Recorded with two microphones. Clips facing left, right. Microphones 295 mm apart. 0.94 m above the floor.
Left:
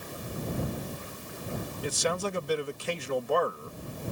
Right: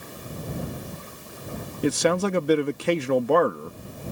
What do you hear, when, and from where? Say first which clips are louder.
1.8 s a man speaking: right 10 dB; 70° right (ahead or behind)